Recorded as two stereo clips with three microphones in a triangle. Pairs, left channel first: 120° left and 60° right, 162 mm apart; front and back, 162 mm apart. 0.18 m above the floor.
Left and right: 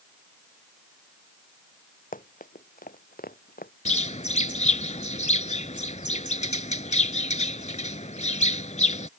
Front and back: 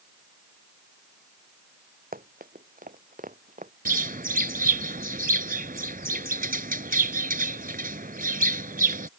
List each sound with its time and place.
2.1 s running footsteps: 155° left; by 3.7 s 145° left
3.9 s a bird: 160° left